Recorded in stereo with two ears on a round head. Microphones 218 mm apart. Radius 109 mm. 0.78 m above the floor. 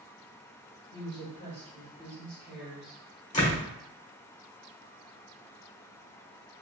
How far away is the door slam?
About 1.6 m.